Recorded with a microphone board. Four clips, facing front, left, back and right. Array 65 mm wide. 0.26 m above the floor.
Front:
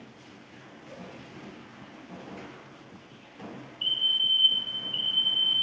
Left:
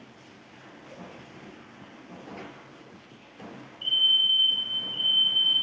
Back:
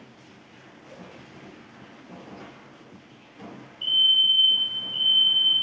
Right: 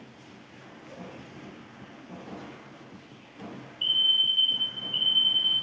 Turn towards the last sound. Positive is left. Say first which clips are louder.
# left 1 dB, back 6 dB
turn(degrees=-55)